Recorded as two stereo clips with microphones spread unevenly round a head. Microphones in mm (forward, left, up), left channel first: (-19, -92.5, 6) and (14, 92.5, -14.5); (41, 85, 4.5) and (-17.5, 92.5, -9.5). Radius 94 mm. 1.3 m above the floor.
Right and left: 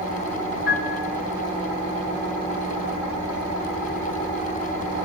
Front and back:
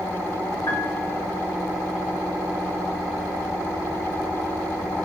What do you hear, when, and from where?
0.7 s a piano: 60° right, 3.5 m